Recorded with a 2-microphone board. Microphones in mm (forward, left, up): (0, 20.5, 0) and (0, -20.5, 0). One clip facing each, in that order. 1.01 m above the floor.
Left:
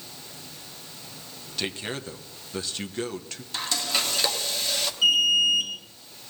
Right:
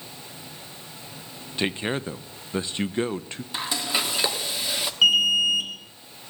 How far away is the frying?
About 1.2 m.